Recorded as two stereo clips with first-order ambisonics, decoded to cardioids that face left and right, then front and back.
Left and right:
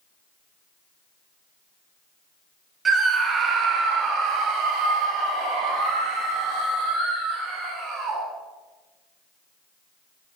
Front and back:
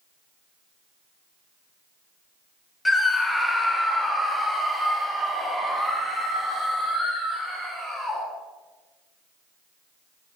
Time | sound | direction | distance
2.9 | a scream | 65° right | 0.9 m